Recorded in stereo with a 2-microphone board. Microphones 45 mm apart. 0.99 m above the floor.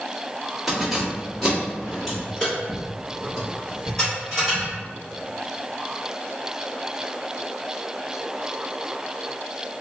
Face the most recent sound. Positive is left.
turn(degrees=10)  # may be behind; listen again after turning